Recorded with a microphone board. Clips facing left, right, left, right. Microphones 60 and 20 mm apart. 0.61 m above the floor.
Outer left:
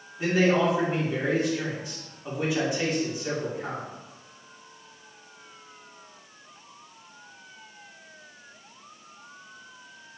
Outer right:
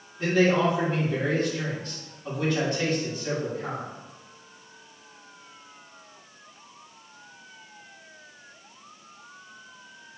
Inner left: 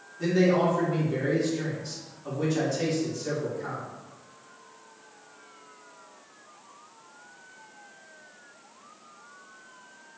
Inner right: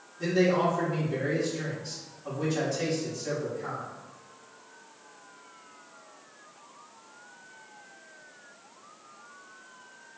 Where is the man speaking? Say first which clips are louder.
Outer right 1 dB, inner left 2 dB; 10° left (ahead or behind), 1.2 m.